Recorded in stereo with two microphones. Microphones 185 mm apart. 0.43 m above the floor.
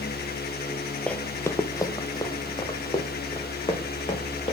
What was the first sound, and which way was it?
Running footsteps, 5° left (ahead or behind).